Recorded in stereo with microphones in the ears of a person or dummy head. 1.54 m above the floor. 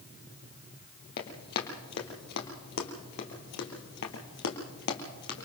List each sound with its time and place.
1.2 s running footsteps: 60° left (ahead or behind), 3 m; by 5.5 s 45° left (ahead or behind), 3 m